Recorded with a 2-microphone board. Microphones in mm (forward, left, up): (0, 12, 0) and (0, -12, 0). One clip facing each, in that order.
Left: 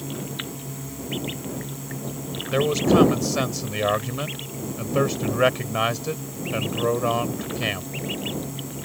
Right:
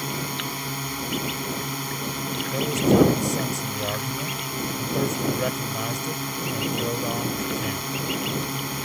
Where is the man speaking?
50° left (ahead or behind).